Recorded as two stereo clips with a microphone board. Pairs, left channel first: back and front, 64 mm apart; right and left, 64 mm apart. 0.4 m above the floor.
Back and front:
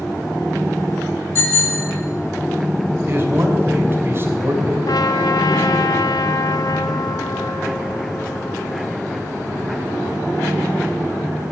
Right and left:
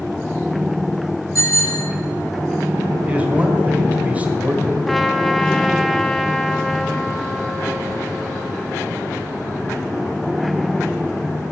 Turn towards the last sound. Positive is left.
turn(degrees=180)